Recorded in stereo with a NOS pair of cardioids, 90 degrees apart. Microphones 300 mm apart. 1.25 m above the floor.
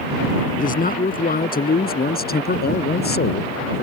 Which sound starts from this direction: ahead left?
A man speaking, at 0.6 s.